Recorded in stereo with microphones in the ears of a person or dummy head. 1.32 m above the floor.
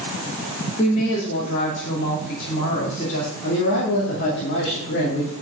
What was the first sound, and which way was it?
A woman speaking, 40° left (ahead or behind).